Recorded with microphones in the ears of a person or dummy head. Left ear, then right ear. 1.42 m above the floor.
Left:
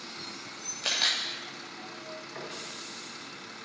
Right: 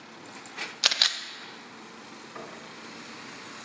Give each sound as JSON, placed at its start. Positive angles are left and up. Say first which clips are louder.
{"t": 0.8, "sound": "a camera shutter", "louder": "right 4 dB", "side_deg": -55, "distance_m": 0.7}
{"t": 2.4, "sound": "knocking", "louder": "even", "side_deg": -5, "distance_m": 2.5}